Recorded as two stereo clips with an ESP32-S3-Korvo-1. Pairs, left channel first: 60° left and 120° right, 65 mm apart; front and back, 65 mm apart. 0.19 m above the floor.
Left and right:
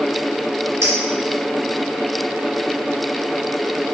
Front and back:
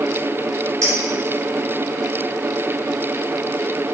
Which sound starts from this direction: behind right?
A clink, at 0.8 s.